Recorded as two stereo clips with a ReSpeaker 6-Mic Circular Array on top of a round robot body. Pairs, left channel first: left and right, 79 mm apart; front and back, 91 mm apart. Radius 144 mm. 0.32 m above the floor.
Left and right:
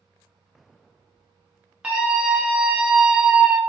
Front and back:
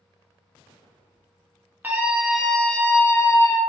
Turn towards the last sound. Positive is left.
turn(degrees=-10)